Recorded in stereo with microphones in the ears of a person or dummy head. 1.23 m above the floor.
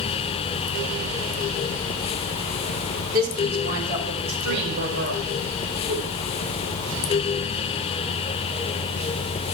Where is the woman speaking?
50° right (ahead or behind), 3 m; by 5.2 s 65° right (ahead or behind), 4.5 m.